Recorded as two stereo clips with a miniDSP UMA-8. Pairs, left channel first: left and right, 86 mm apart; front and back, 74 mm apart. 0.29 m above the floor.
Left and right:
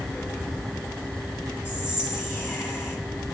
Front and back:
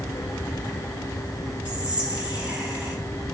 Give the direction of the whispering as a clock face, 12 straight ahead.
8 o'clock.